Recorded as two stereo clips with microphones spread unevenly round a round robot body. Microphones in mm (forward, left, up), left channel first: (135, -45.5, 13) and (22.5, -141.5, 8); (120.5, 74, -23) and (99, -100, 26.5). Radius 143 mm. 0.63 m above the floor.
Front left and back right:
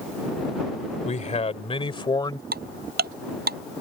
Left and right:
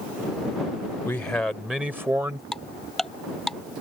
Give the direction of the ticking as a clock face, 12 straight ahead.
6 o'clock.